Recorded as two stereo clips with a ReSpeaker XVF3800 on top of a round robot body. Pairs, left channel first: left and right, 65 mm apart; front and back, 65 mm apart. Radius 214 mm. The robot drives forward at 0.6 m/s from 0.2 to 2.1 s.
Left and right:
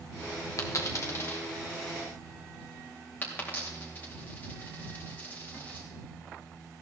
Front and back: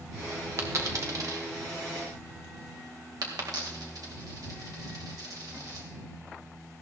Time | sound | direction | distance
0.6 | a dropped coin | 130° left | 1.1 m